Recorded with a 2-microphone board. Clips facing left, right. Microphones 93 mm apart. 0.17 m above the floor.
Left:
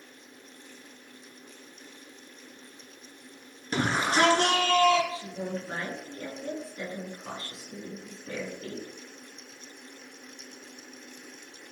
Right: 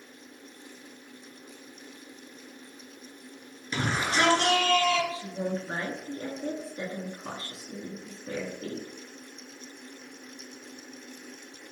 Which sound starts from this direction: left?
A shout, at 3.7 s.